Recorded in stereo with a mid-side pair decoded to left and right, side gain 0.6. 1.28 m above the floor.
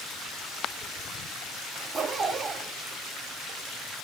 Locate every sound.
1.8 s a zipper: 30° right, 3 m